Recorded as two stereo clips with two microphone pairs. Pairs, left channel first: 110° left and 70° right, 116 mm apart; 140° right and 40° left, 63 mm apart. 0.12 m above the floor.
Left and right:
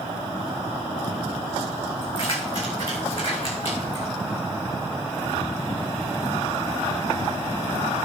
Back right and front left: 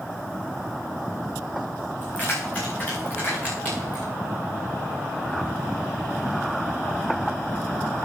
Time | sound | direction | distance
2.0 | keys jangling | 150° left | 6.5 m